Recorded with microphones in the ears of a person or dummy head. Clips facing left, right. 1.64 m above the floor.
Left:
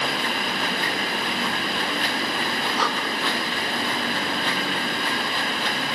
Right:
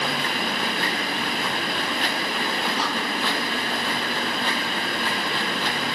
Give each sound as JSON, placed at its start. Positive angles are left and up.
{"t": 2.8, "sound": "breathing", "side_deg": 55, "distance_m": 1.5}